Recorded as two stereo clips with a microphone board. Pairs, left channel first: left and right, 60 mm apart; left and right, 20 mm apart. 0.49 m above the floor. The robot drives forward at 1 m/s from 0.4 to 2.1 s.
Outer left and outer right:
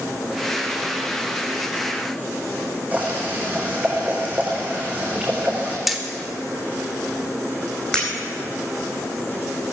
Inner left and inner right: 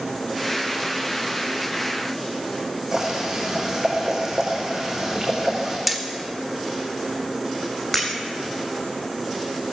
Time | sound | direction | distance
2.9 | boiling | 25° right (ahead or behind) | 5.5 m
5.9 | hammering | 5° right (ahead or behind) | 1.3 m
7.9 | breaking glass | 10° left (ahead or behind) | 4 m